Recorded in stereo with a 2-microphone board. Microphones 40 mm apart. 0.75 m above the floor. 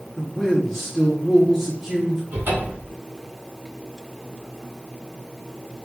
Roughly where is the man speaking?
Centre.